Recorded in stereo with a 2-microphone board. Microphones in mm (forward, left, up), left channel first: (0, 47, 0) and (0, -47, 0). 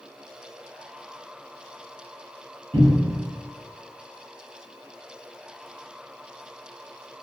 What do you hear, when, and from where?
2.7 s a cupboard door: 75° right (ahead or behind), 0.9 m